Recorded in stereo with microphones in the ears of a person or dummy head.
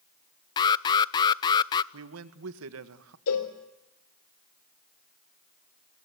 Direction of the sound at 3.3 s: 75° left (ahead or behind).